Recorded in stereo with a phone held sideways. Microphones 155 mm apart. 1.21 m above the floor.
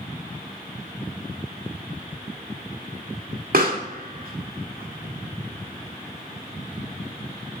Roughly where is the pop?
Right.